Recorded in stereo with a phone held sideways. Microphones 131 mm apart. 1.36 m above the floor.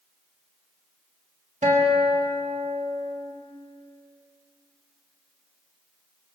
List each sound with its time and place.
1.6 s a guitar: 70° right (ahead or behind), 5 m